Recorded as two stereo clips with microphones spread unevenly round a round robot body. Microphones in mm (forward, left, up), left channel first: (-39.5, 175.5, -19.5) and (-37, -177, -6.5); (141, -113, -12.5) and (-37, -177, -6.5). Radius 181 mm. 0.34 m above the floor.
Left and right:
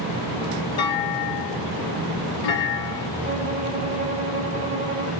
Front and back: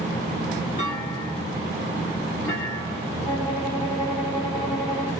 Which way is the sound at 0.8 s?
80° left.